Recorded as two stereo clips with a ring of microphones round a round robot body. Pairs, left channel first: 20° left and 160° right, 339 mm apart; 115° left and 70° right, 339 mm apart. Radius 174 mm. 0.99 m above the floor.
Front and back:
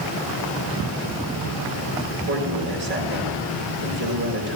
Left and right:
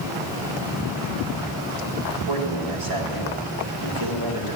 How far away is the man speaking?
About 4.5 m.